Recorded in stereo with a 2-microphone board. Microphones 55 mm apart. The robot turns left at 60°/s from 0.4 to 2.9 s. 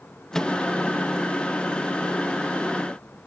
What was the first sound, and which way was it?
A microwave, 10° left (ahead or behind).